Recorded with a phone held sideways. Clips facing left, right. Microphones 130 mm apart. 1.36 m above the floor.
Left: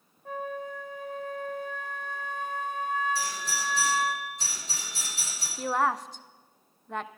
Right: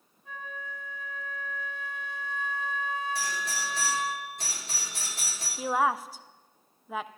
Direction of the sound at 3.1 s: 60° right (ahead or behind).